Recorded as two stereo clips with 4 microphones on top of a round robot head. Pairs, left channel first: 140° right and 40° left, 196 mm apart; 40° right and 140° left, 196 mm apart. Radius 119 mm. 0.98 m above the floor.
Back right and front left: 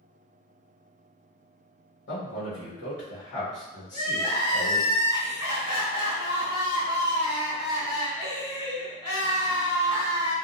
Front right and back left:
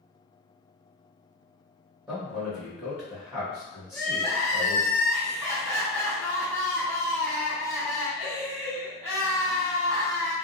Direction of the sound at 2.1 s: 145° right.